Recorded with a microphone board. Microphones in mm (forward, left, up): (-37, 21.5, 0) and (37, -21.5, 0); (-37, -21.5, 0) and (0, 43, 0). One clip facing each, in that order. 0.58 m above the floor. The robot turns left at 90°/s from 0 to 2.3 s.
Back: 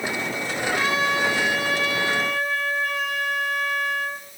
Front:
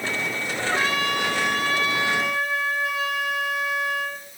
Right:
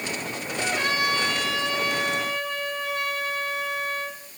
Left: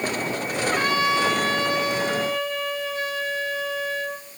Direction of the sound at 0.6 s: 40° left.